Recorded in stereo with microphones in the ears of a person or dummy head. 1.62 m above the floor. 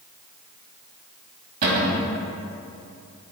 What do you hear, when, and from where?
1.6 s a cupboard door: 45° right (ahead or behind), 1.6 m